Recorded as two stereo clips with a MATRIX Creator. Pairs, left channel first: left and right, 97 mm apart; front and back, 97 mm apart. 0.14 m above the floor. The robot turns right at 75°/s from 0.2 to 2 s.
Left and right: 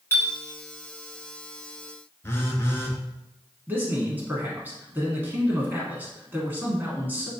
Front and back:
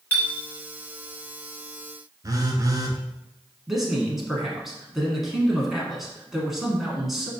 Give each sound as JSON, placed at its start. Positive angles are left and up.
{"t": 0.1, "sound": "a clink", "azimuth_deg": 55, "distance_m": 0.9}
{"t": 2.2, "sound": "a phone buzzing", "azimuth_deg": 145, "distance_m": 0.6}
{"t": 3.7, "sound": "a man speaking", "azimuth_deg": -100, "distance_m": 1.1}